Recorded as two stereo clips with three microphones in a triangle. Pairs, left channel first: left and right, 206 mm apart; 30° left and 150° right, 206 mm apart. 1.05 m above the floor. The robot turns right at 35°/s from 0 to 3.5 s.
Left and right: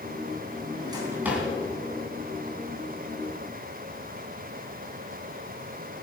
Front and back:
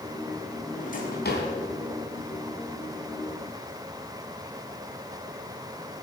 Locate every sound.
0.7 s a drawer: 25° right, 3 m; by 1.5 s straight ahead, 3 m